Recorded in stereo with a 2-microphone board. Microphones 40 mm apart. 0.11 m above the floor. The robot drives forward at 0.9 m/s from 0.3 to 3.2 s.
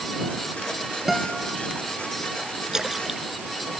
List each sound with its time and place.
1.1 s a guitar: 5° right (ahead or behind)
2.7 s a splash: 15° right (ahead or behind)